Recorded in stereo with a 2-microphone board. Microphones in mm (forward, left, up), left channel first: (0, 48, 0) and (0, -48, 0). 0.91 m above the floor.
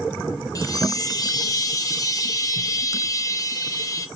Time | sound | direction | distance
0.6 | a chime | 40° left (ahead or behind) | 0.6 m